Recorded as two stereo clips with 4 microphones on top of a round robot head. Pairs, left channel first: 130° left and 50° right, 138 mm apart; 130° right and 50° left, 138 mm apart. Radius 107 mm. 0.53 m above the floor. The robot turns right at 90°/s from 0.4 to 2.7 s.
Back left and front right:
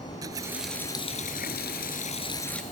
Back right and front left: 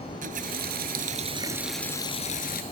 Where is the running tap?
20° left; by 2.6 s 140° right.